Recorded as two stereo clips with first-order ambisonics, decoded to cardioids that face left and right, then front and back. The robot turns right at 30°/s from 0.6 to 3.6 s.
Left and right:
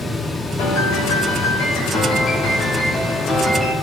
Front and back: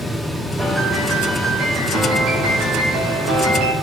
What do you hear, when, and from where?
0.6 s a piano: 95° left, 2.5 m; by 3.7 s 175° right, 2.5 m